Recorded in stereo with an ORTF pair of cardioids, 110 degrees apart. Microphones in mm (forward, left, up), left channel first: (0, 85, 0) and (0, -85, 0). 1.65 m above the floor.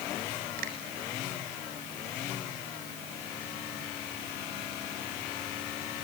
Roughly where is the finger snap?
Ahead right.